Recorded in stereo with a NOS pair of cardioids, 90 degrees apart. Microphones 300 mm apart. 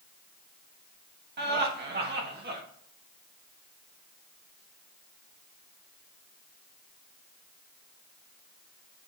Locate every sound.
1.4 s laughter: 35° right, 1.3 m